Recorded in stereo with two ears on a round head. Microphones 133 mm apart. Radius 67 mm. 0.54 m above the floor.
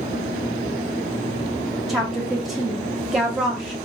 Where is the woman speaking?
Centre (ahead or behind), 0.6 m.